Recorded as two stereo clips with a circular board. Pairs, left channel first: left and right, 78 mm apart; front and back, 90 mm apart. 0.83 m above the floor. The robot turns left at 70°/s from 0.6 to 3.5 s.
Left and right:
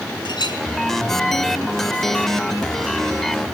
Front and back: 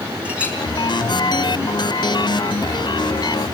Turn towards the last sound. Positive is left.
turn(degrees=-100)